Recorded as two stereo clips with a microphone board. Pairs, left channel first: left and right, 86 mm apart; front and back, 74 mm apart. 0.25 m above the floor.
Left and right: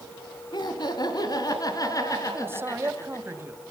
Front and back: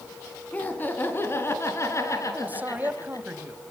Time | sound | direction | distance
0.5 | laughter | 65° left | 3 m
2.3 | a man speaking | 130° right | 1.8 m